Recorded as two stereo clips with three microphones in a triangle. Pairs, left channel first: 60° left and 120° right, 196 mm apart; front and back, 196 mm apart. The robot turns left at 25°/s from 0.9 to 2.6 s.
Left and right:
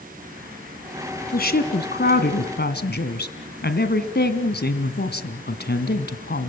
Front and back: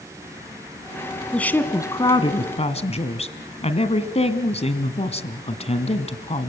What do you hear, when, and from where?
1.3 s a woman speaking: 85° left, 1.9 m; by 6.5 s 50° left, 1.9 m